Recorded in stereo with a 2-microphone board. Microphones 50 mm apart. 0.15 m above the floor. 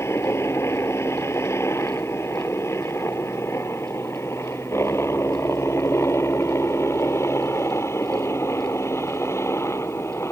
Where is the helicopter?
65° left (ahead or behind).